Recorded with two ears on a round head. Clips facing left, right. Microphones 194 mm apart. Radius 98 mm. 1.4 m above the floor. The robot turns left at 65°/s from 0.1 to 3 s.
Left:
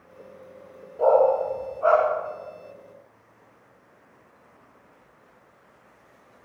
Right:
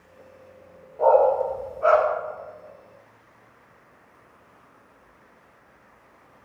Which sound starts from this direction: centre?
A dog barking, at 1.0 s.